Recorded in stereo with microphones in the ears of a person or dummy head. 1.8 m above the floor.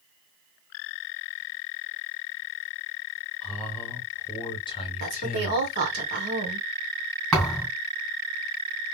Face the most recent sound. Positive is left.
turn(degrees=0)  # may be behind; listen again after turning